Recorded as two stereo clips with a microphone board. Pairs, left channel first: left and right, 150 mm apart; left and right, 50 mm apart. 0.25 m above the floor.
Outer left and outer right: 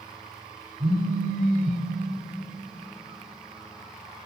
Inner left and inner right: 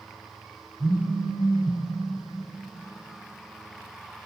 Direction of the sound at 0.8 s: 35° right (ahead or behind).